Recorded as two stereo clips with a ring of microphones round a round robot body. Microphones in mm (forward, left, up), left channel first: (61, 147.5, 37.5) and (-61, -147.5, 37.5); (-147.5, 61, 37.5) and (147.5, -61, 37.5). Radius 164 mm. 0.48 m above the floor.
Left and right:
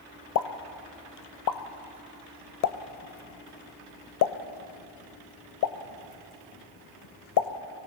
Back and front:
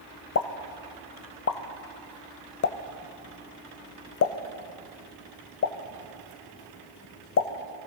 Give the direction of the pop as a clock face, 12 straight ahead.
8 o'clock.